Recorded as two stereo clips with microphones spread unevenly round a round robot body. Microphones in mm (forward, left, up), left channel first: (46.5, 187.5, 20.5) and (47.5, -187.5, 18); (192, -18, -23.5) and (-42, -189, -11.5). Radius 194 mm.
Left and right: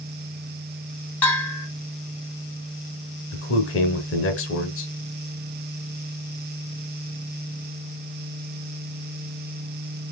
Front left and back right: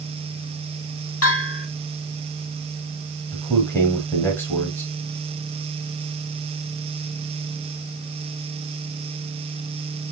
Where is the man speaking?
110° left, 1.0 m.